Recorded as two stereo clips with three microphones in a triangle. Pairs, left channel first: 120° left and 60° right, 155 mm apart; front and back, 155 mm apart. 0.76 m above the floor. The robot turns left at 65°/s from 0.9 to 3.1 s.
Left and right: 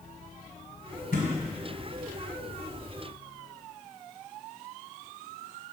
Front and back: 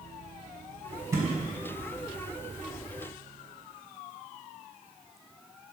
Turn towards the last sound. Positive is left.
turn(degrees=-20)